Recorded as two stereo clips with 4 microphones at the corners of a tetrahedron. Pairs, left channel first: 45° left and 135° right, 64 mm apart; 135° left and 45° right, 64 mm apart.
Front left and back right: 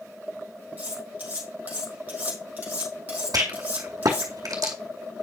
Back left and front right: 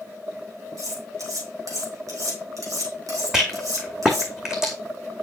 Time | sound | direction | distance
0.8 | cutlery clinking | 70° right | 3 m
3.3 | a rattle | 125° right | 2 m